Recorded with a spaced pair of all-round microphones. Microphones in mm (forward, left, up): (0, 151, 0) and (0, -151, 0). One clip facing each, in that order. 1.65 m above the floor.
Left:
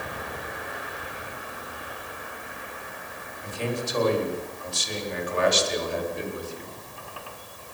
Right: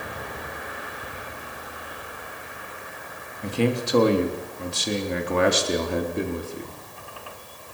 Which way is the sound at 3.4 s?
80° right.